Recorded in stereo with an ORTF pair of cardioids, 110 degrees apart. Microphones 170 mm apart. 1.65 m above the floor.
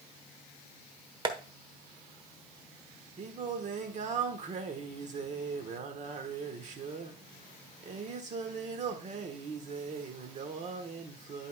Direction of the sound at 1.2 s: 25° right.